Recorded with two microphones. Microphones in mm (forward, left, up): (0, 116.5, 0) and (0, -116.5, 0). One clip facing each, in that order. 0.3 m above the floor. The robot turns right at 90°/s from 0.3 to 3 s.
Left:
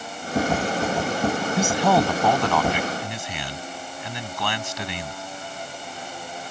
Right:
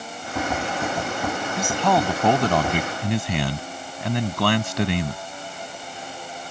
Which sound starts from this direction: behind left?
A man speaking, at 1.6 s.